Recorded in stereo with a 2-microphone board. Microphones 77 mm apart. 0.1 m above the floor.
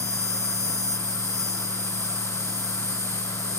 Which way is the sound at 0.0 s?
50° right (ahead or behind).